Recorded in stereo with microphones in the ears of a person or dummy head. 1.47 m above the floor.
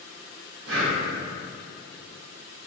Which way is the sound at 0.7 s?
80° right.